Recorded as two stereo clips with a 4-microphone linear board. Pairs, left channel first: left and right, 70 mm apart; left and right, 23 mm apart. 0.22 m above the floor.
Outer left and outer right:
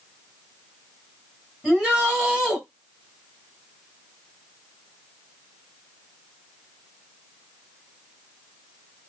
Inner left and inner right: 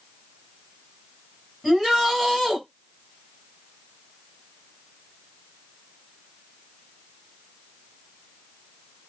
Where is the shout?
10° right (ahead or behind), 2.0 m.